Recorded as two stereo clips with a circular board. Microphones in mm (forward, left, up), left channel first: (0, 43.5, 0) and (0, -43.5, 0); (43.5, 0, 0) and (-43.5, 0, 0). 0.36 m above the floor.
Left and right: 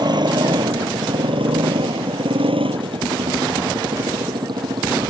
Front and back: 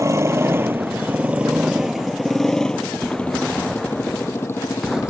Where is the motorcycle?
125° right; by 5.1 s 55° right.